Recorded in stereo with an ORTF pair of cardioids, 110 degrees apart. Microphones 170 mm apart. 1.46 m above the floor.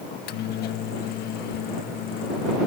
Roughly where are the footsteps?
I don't hear footsteps.